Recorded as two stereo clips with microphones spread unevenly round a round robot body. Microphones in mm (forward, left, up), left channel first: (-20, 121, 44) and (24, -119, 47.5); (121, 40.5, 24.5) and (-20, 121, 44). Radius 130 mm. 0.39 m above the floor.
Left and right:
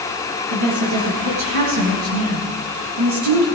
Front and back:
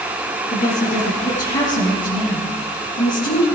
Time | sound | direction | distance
0.5 | a woman speaking | 85° right | 7 m